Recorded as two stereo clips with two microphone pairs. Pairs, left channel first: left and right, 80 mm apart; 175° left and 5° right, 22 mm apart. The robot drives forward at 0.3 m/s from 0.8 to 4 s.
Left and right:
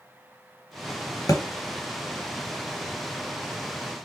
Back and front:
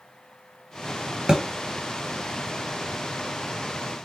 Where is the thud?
45° left, 1.0 m; by 1.4 s 50° left, 1.0 m.